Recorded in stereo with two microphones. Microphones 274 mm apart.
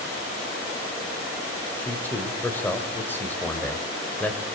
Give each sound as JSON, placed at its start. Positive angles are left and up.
{"t": 1.8, "sound": "a man speaking", "side_deg": 5, "distance_m": 3.5}